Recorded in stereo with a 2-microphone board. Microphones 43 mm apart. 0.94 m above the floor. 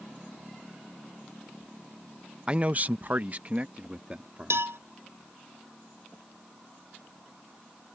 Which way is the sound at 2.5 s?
25° right (ahead or behind).